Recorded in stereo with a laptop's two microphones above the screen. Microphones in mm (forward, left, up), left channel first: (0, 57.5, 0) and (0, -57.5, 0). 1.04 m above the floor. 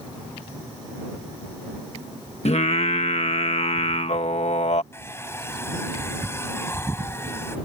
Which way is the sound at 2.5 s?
65° left (ahead or behind).